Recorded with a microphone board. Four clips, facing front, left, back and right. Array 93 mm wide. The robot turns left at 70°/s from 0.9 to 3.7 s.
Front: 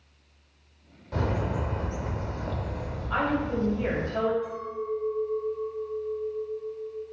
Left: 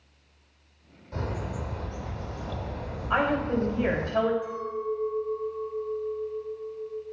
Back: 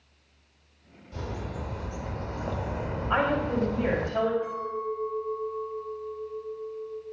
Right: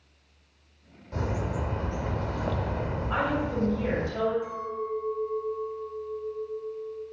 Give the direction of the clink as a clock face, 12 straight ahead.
5 o'clock.